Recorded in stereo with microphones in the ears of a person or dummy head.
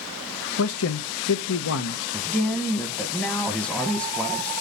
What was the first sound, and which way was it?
A man speaking, 70° left (ahead or behind).